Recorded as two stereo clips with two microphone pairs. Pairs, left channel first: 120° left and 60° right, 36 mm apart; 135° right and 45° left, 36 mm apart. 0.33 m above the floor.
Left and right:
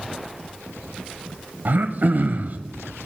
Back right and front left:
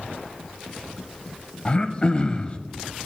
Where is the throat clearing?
80° right, 0.5 m.